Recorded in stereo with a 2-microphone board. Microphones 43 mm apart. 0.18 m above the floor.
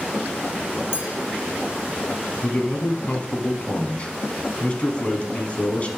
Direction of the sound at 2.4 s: 30° left (ahead or behind).